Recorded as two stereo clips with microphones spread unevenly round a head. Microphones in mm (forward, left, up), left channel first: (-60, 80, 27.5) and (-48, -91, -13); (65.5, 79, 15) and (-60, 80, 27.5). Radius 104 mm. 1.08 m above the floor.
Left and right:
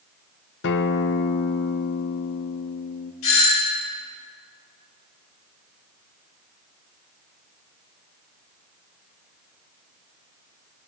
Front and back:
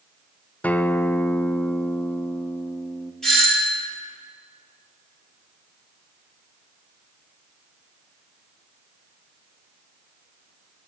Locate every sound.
0.6 s a guitar: 70° left, 0.5 m
3.2 s a doorbell: 85° left, 4 m